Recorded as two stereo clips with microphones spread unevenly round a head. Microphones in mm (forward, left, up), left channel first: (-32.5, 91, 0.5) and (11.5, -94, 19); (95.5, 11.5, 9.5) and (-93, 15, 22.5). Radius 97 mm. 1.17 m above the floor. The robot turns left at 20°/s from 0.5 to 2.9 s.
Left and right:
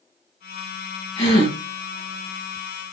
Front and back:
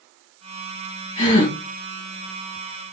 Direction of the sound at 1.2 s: 50° left.